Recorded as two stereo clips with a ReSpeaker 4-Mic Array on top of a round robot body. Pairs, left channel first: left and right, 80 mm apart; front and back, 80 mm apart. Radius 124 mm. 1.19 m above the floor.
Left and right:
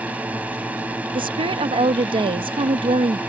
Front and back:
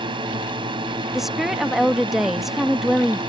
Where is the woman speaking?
90° right.